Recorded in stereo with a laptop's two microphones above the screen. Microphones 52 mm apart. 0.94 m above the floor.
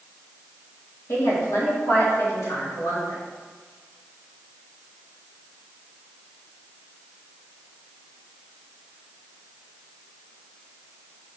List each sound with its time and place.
1.1 s a woman speaking: 75° left (ahead or behind), 1.3 m; by 3.2 s 85° left, 2.5 m